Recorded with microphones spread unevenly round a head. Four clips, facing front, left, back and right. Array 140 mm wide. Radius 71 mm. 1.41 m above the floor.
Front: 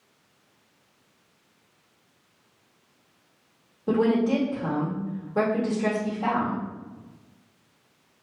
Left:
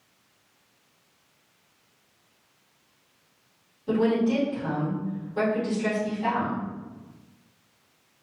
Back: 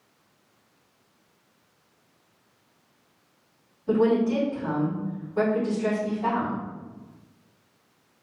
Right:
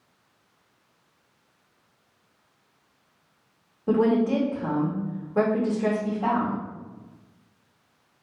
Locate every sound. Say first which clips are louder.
3.9 s a woman speaking: right 2 dB, even; 35° right, 2 m